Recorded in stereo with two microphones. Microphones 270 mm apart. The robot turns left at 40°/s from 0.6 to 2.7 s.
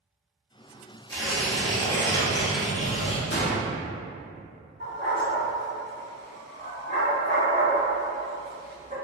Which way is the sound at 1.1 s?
15° left (ahead or behind).